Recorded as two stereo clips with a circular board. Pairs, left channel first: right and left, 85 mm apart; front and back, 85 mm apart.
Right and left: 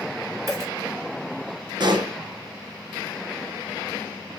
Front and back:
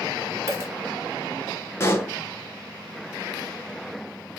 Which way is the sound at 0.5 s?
130° left.